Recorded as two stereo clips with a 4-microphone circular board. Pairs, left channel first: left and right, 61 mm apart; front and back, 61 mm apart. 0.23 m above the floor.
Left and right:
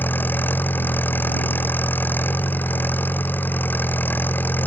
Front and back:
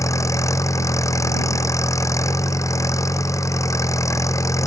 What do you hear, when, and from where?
0.0 s an engine running: 30° left